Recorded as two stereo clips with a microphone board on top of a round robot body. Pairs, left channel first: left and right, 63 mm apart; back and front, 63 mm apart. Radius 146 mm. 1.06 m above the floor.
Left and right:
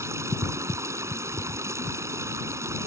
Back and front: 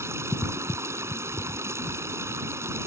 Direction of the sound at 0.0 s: 45° right.